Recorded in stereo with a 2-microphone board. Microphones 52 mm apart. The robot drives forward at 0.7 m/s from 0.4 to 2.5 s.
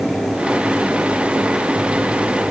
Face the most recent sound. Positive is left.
No sound to turn to.